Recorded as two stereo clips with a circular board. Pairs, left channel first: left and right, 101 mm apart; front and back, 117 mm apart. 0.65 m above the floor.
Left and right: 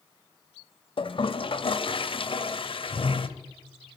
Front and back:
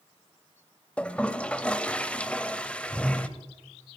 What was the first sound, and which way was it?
A toilet flushing, 80° left.